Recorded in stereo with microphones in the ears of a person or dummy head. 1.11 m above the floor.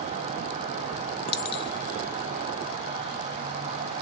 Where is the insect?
30° right (ahead or behind), 1.3 m.